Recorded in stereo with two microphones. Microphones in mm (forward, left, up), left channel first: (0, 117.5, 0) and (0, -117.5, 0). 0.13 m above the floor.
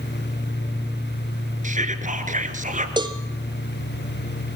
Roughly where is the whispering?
Right.